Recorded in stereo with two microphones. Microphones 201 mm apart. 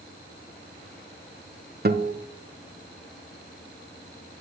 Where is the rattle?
No rattle in this recording.